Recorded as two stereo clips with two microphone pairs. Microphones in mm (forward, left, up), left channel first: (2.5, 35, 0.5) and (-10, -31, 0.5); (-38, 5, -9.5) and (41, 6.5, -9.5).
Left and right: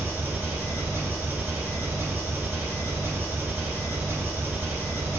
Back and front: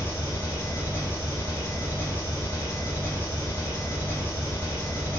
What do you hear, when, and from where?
0.0 s an engine running: 145° right, 1.6 m